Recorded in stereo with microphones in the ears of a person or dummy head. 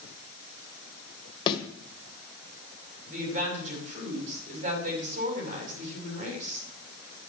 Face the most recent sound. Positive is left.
turn(degrees=-45)  # may be behind; listen again after turning